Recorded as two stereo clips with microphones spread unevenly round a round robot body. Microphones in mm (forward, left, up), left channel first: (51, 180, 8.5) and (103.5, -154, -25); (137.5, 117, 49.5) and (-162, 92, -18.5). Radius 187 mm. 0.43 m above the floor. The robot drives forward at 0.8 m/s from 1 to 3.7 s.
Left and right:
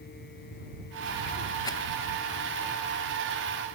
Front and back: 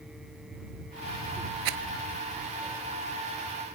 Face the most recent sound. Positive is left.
turn(degrees=180)